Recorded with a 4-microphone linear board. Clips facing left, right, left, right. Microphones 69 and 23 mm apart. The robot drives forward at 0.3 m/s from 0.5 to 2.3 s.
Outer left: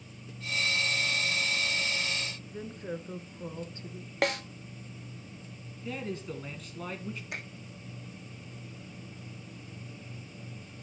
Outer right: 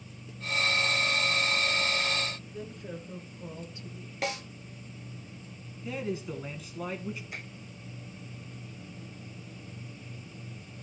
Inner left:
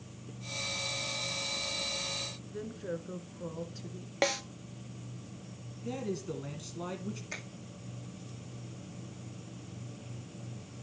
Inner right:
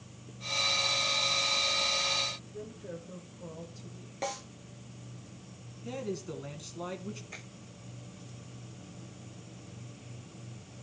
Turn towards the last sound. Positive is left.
turn(degrees=70)  # may be behind; listen again after turning